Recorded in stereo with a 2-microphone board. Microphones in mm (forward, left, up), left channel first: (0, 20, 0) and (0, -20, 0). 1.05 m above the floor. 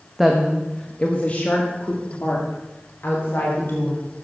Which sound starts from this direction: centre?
A woman speaking, at 0.2 s.